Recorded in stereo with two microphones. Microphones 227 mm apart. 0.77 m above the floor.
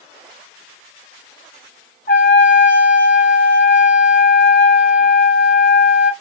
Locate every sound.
2.1 s a trumpet: 50° left (ahead or behind), 1.1 m